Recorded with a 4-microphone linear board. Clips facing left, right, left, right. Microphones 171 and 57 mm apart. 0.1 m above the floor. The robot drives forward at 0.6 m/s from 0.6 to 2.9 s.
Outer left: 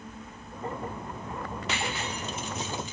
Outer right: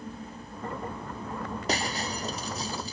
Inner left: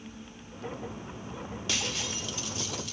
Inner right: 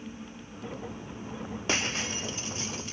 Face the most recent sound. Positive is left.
turn(degrees=-35)  # may be behind; listen again after turning